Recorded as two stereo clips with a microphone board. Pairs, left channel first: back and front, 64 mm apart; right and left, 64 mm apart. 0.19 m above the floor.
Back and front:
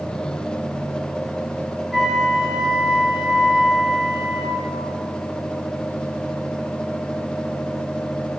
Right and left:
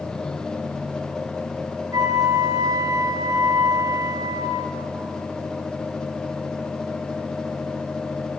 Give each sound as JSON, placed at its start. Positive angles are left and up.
{"t": 1.9, "sound": "a flute", "azimuth_deg": 85, "distance_m": 2.5}